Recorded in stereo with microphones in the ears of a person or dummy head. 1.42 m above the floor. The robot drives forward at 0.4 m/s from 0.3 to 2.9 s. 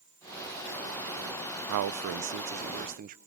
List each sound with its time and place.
1.7 s a man speaking: 70° right (ahead or behind), 0.6 m; by 3.2 s 40° right (ahead or behind), 0.9 m